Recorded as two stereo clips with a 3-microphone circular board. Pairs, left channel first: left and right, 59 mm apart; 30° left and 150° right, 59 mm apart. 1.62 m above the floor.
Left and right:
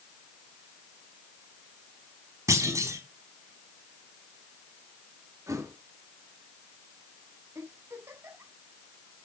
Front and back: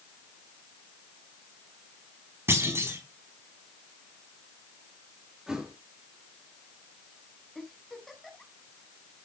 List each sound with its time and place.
2.5 s a clunk: 110° right, 4 m
5.5 s a thud: 70° right, 5 m
7.5 s a giggle: 60° right, 6 m